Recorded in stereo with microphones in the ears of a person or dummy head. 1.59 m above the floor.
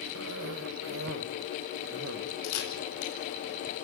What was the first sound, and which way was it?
A cough, 65° right (ahead or behind).